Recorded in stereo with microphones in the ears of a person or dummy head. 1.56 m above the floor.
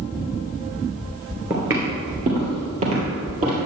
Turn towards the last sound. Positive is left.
turn(degrees=-45)  # may be behind; listen again after turning